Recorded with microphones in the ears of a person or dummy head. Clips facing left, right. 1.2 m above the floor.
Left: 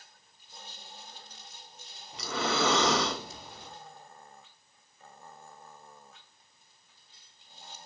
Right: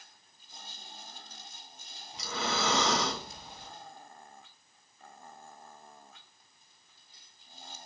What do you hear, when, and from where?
2.1 s breathing: 50° left (ahead or behind), 0.7 m